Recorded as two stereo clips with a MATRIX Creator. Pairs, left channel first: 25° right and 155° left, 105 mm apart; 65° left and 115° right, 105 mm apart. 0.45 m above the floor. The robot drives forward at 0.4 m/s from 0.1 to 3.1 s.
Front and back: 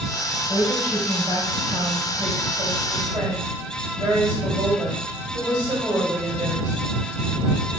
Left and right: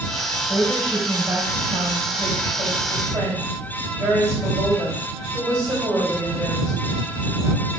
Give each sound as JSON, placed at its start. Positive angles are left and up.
{"t": 0.5, "sound": "a woman speaking", "azimuth_deg": -165, "distance_m": 1.7}